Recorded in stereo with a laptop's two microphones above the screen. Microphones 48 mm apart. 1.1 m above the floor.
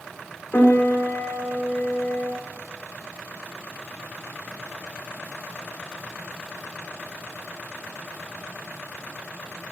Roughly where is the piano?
Left.